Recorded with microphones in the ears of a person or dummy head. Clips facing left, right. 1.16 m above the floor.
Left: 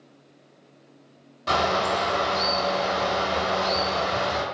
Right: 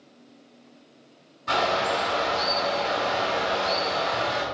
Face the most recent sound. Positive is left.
turn(degrees=80)